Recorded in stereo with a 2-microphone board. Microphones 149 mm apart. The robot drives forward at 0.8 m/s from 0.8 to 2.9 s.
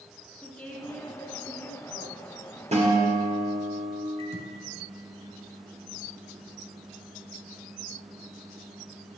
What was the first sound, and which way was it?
A woman speaking, 10° left (ahead or behind).